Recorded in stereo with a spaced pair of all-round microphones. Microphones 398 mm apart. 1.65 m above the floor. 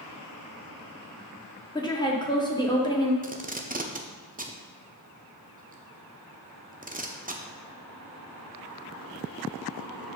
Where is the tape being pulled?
20° right (ahead or behind), 0.7 m.